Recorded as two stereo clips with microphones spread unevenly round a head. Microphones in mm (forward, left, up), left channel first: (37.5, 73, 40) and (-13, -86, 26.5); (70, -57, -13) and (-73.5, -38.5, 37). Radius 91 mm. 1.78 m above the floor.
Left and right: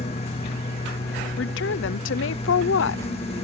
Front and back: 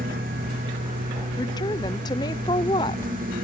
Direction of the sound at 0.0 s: 130° left.